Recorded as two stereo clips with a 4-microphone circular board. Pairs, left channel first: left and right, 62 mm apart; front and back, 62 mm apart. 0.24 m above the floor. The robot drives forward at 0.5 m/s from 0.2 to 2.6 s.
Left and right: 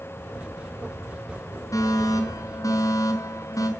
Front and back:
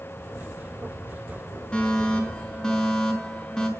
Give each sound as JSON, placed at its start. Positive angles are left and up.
{"t": 1.7, "sound": "a fire alarm", "azimuth_deg": 75, "distance_m": 5.5}